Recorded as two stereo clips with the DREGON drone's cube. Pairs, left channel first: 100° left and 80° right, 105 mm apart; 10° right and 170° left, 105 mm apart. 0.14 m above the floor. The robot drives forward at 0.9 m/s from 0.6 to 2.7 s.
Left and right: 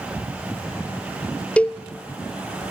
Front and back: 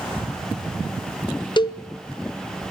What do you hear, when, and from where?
1.6 s a cowbell: 20° left, 0.9 m; by 1.8 s 30° left, 0.7 m